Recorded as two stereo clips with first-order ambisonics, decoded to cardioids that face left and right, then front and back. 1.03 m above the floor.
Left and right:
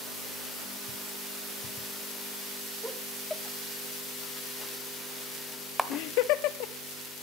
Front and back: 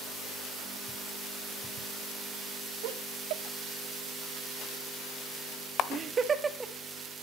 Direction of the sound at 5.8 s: 10° right.